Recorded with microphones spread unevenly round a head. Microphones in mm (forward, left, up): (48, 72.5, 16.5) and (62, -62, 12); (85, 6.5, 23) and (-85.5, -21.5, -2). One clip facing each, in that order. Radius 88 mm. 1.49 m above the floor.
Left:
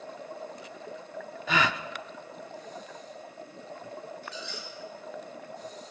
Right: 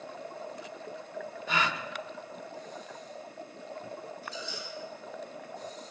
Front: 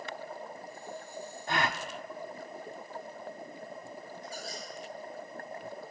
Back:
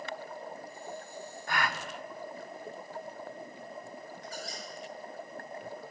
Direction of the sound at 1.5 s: 80° left.